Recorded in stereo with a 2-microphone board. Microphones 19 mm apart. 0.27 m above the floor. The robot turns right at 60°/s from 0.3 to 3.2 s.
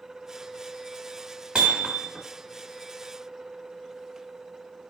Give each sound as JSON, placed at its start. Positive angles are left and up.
{"t": 1.6, "sound": "hammering", "azimuth_deg": -80, "distance_m": 1.9}